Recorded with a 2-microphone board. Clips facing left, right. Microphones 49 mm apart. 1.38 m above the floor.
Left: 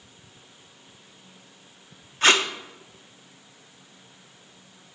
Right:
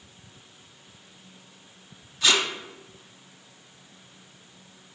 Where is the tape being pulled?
45° left (ahead or behind), 0.5 m.